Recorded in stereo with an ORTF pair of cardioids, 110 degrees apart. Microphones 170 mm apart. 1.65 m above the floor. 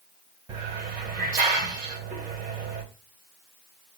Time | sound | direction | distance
0.5 | a hiss | 50° right | 2 m